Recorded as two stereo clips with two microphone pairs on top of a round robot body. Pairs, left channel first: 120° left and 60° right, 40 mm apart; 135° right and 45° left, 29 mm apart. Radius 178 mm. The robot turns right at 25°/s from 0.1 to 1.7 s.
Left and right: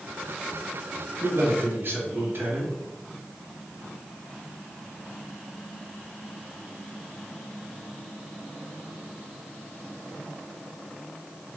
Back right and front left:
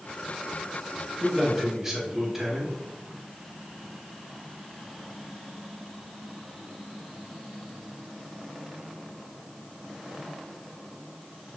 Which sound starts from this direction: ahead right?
A man speaking, at 1.2 s.